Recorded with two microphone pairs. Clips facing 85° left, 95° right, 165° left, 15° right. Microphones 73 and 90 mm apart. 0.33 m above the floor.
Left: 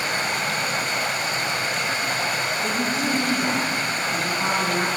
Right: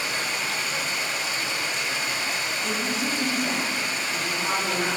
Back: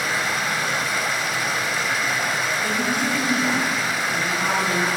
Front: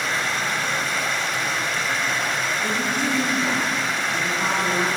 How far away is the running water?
About 1.2 m.